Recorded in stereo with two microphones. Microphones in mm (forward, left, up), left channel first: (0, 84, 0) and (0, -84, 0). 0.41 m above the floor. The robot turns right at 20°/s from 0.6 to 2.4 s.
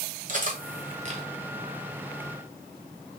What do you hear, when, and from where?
0.3 s cutlery clinking: 50° right (ahead or behind), 1.2 m; by 1.2 s 40° right (ahead or behind), 1.2 m